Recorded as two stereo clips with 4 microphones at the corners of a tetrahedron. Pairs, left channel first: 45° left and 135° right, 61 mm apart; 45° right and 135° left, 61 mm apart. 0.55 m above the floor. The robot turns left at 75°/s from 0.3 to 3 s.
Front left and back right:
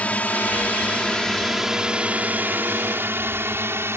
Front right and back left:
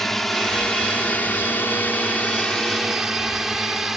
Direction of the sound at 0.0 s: 30° left.